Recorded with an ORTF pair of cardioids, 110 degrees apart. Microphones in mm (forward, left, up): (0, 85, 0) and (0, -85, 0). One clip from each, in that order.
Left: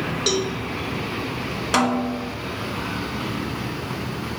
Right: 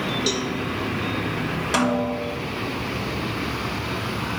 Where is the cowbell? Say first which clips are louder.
Left 5 dB; 15° left, 1.0 m.